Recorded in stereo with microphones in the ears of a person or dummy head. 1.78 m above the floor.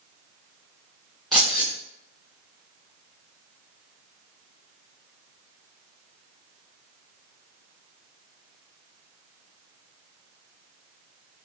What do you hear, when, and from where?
1.3 s keys jangling: 5° left (ahead or behind), 1.9 m